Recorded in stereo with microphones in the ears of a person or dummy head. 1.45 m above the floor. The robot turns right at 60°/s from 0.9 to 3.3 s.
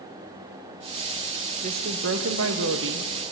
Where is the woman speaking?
145° right, 1.0 m; by 3.3 s 40° right, 1.0 m.